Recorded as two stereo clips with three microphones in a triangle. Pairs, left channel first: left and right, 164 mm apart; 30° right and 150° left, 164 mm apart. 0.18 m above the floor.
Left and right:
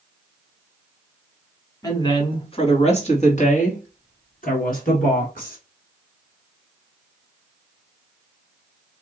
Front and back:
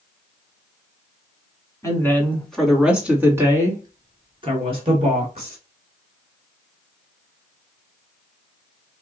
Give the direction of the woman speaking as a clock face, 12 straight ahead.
11 o'clock.